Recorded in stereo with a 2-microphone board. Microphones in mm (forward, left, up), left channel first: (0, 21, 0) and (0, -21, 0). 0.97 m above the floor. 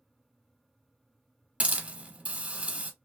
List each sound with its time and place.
1.6 s a hiss: 30° right (ahead or behind), 1.2 m